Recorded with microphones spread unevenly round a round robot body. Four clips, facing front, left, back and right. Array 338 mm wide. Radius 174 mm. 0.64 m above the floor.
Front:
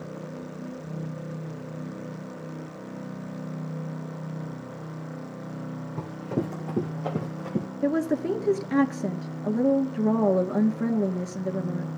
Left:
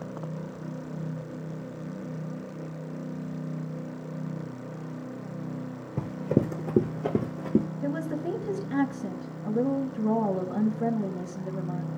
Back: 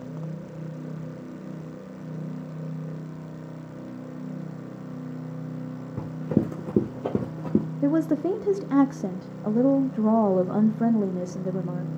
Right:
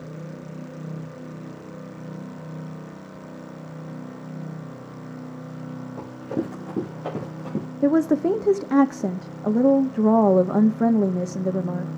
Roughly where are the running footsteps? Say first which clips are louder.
Left 3 dB, back 5 dB; behind left.